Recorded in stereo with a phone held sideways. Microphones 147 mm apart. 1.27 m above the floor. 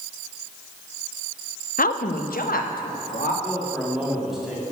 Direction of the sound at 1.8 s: 80° left.